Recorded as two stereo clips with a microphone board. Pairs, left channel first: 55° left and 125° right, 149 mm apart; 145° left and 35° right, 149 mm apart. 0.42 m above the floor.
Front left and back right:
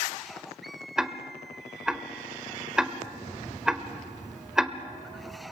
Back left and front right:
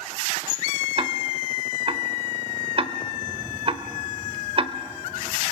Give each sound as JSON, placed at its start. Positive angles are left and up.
{"t": 1.0, "sound": "ticking", "azimuth_deg": -40, "distance_m": 1.0}